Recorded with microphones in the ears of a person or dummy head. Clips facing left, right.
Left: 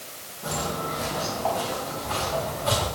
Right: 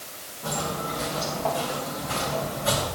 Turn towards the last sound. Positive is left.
turn(degrees=-15)  # may be behind; listen again after turning